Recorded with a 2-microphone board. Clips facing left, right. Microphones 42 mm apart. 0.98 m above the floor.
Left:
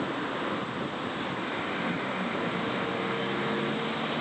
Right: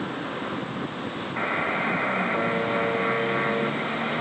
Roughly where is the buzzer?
Right.